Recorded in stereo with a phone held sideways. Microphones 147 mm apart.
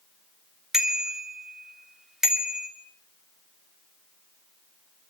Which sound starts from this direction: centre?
A bicycle bell, at 0.7 s.